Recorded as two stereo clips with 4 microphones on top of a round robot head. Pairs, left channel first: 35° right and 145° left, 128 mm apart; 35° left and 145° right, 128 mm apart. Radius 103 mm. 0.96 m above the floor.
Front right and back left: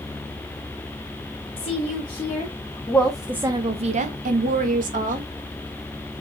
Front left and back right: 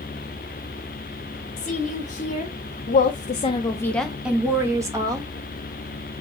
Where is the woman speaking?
10° left, 1.4 m; by 5.3 s 155° left, 1.3 m.